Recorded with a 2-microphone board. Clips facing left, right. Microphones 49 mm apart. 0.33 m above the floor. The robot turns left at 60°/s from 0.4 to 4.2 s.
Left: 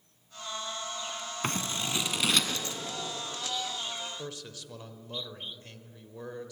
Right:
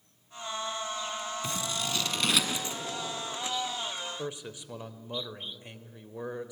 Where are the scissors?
50° left (ahead or behind), 2 m; by 2.8 s 25° right (ahead or behind), 2 m.